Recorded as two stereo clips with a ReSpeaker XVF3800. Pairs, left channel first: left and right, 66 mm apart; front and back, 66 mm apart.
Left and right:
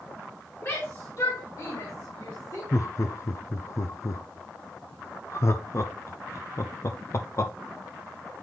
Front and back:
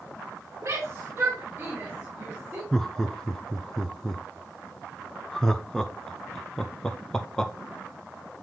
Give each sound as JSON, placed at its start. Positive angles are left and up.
{"t": 0.6, "sound": "a shout", "azimuth_deg": 135, "distance_m": 2.0}
{"t": 2.7, "sound": "laughter", "azimuth_deg": 80, "distance_m": 0.5}